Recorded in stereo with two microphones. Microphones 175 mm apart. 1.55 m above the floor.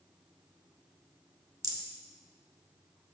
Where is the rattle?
20° right (ahead or behind), 0.9 m.